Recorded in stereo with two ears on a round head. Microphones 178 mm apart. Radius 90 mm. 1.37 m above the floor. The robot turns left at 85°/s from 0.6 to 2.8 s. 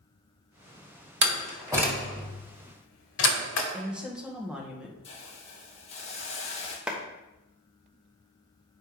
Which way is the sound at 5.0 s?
35° left (ahead or behind).